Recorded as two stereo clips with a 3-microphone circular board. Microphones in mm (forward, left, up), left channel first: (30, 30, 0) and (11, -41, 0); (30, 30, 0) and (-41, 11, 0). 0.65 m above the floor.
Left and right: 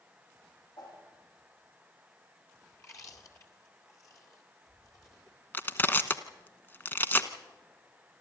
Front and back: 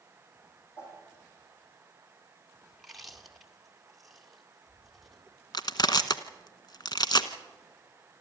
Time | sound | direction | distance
0.8 | a whoosh | 75° left | 8 m
2.7 | chewing | 105° left | 2 m
5.5 | crushing | 15° left | 1.0 m